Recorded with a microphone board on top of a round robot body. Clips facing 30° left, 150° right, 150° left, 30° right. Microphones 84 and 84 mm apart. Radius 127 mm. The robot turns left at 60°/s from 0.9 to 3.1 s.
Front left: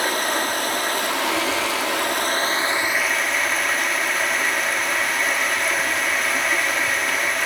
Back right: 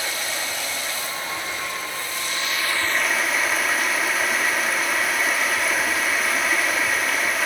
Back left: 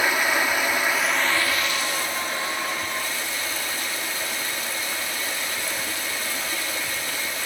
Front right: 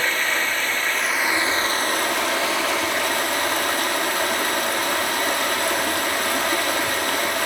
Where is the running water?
70° left, 2 m; by 7.5 s 60° right, 2 m.